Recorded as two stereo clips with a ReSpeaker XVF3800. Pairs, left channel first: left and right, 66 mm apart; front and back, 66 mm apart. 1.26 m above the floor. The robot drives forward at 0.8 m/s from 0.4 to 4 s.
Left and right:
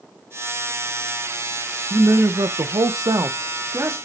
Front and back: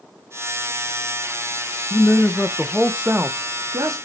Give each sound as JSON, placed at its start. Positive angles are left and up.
{"t": 1.9, "sound": "a man speaking", "azimuth_deg": -45, "distance_m": 1.0}